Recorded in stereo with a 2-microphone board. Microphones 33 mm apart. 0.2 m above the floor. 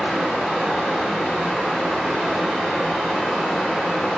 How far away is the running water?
About 1.1 m.